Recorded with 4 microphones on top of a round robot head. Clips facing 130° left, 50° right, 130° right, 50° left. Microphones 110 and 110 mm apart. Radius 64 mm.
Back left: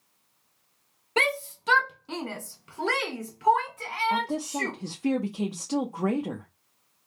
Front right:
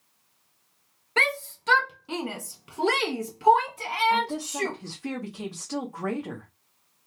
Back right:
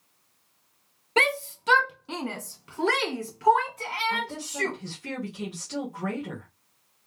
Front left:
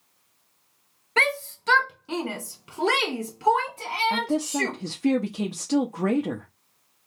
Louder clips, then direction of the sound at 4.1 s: Front right 1 dB, front left 7 dB; 65° left.